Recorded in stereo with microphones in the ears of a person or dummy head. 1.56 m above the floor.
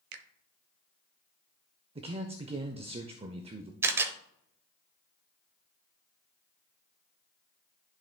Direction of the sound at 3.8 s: 15° right (ahead or behind).